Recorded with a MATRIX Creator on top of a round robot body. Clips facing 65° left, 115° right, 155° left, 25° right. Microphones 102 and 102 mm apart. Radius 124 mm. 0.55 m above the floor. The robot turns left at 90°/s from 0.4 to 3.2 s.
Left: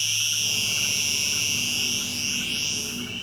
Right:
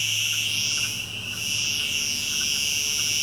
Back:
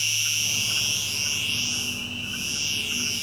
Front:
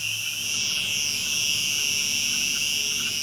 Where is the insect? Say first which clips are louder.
Right 1 dB, back 2 dB; 135° left; by 3.2 s 115° right.